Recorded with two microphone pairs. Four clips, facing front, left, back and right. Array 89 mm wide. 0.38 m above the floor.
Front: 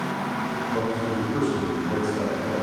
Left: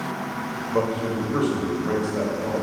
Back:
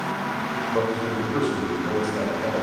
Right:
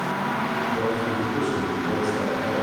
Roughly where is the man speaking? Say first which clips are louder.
Left 5 dB, back 2 dB; behind left.